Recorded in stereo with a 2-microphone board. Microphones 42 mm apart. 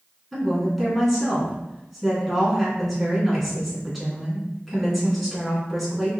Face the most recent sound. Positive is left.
turn(degrees=0)  # may be behind; listen again after turning